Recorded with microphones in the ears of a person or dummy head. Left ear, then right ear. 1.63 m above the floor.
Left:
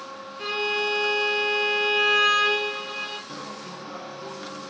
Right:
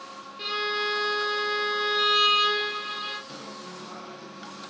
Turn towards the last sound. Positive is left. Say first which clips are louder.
# left 3 dB
turn(degrees=15)  # may be behind; listen again after turning